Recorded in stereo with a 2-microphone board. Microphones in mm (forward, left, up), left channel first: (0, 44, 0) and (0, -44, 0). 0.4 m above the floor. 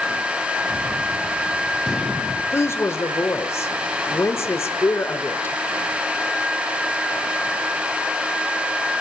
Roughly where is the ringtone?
No ringtone in this recording.